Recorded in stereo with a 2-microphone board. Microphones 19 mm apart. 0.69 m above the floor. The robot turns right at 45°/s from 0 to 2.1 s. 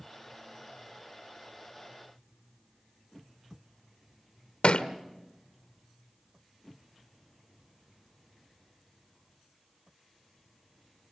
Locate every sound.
4.6 s a thud: 75° left (ahead or behind), 1.1 m